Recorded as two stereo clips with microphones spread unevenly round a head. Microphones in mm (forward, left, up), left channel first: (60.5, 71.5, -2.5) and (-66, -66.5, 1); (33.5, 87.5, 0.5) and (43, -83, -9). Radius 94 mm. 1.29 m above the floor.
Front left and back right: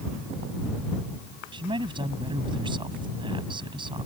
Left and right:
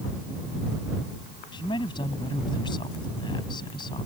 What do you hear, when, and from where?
1.5 s a man speaking: 160° left